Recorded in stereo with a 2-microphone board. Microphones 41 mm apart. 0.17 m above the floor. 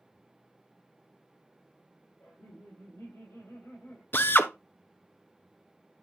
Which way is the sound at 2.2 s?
75° left (ahead or behind).